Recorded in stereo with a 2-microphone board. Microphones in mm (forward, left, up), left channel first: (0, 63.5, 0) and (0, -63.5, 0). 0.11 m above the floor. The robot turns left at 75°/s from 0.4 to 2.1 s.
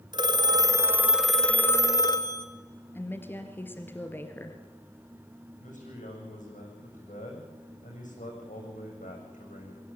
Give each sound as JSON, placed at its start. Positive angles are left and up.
{"t": 0.1, "sound": "a phone ringing", "azimuth_deg": -115, "distance_m": 1.3}
{"t": 3.0, "sound": "a woman speaking", "side_deg": 15, "distance_m": 2.5}
{"t": 5.6, "sound": "a man speaking", "side_deg": 80, "distance_m": 8.5}